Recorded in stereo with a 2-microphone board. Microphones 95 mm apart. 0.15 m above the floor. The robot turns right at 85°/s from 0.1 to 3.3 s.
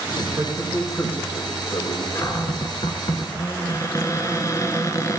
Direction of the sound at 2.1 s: 40° left.